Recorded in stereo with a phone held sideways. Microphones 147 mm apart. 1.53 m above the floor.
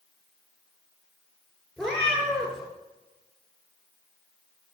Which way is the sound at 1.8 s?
5° left (ahead or behind).